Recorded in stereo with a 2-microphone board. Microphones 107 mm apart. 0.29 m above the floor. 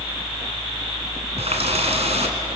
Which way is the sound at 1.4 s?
70° right (ahead or behind).